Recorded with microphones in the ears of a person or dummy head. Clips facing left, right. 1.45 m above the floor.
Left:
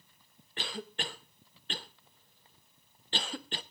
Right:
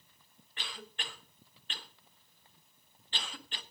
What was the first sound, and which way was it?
A cough, 40° left (ahead or behind).